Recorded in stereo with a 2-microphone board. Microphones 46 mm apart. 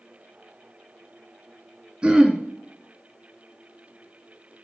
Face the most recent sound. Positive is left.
turn(degrees=-25)  # may be behind; listen again after turning